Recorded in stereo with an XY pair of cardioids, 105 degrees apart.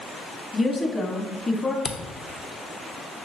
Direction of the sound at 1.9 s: 45° left.